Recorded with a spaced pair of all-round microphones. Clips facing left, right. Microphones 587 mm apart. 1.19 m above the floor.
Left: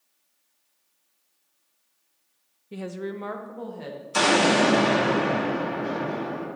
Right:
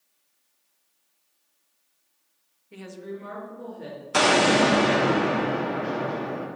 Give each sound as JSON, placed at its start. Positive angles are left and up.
{"t": 2.7, "sound": "a woman speaking", "side_deg": 55, "distance_m": 0.6}
{"t": 4.1, "sound": "an explosion", "side_deg": -75, "distance_m": 1.8}